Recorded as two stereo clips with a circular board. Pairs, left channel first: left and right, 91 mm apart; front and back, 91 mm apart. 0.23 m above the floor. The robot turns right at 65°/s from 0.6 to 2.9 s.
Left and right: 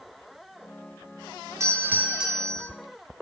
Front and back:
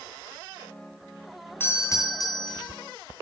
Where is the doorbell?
55° right, 3 m; by 2.7 s 15° left, 3 m.